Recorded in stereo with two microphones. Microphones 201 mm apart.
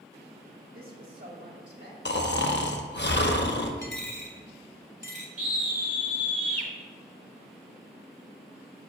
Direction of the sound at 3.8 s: 70° left (ahead or behind).